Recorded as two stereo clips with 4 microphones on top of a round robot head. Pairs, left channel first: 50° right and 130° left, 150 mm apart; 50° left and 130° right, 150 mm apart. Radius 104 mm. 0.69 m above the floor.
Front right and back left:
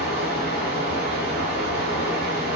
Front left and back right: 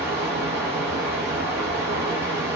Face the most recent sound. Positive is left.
turn(degrees=150)